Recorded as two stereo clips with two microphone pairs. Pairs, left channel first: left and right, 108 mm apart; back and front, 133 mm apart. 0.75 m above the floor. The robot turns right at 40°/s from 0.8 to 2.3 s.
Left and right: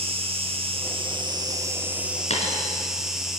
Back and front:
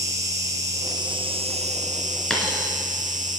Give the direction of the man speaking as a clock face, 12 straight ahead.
No man speaking in this recording.